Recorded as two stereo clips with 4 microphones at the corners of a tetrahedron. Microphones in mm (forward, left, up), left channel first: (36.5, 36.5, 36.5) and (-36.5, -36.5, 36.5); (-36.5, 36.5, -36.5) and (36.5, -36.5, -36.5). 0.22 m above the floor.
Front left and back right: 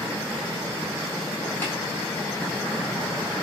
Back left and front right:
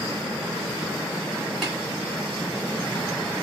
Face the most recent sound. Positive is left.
turn(degrees=50)